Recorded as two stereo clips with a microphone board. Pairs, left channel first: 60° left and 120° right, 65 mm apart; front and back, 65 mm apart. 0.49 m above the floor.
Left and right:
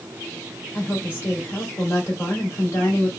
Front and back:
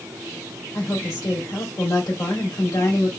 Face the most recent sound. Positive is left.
turn(degrees=10)